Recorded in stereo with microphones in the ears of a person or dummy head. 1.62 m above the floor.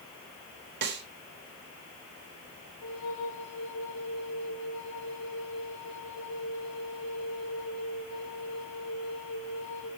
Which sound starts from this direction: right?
A snare drum, at 0.8 s.